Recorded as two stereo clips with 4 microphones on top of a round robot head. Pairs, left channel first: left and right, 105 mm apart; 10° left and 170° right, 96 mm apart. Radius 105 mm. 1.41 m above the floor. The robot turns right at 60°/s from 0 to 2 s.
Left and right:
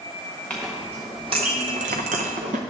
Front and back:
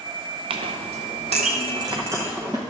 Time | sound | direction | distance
0.5 | a clink | 170° left | 0.7 m